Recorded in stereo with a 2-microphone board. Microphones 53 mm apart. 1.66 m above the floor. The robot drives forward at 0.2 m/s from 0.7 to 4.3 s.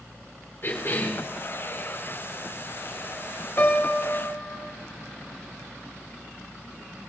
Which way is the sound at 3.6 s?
55° left (ahead or behind).